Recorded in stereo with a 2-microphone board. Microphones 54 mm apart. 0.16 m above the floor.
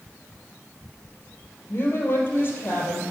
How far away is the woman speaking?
About 3.5 m.